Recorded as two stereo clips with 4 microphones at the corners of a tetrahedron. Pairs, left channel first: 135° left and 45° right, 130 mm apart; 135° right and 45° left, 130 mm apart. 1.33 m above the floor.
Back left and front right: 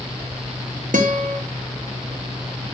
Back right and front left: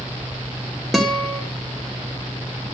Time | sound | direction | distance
0.9 | a guitar | 45° right | 2 m